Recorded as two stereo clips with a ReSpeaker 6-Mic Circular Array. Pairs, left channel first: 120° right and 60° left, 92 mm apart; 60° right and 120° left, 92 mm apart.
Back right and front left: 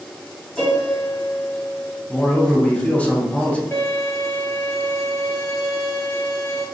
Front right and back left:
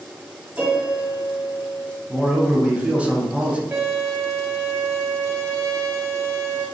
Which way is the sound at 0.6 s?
160° left.